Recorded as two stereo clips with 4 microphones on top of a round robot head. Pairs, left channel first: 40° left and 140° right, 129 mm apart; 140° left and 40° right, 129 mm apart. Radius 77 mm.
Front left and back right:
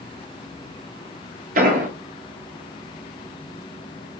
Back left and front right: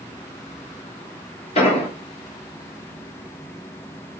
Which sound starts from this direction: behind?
An explosion, at 1.6 s.